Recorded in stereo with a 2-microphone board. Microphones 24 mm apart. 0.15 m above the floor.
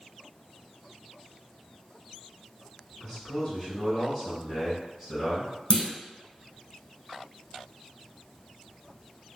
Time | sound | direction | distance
3.0 | a man speaking | 15° left (ahead or behind) | 1.8 m
5.7 | a clunk | 50° left (ahead or behind) | 1.0 m